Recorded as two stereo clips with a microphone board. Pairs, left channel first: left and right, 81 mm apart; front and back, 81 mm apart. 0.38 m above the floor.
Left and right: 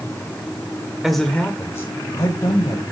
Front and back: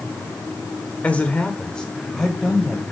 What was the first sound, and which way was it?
A man speaking, 15° right.